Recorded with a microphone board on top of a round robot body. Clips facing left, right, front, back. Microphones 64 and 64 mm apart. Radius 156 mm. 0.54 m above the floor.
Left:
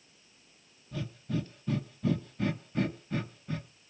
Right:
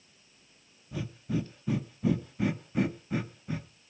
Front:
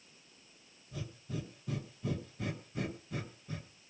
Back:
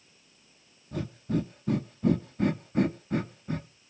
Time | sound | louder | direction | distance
0.9 | breathing | right 2 dB, back 12 dB | 165° right | 1.0 m